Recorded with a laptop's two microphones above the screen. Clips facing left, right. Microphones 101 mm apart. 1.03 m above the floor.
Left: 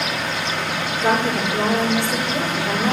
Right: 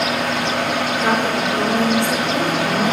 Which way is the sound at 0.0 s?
65° right (ahead or behind).